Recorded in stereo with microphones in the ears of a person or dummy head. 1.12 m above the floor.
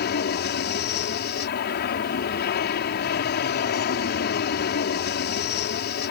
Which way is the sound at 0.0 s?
55° left (ahead or behind).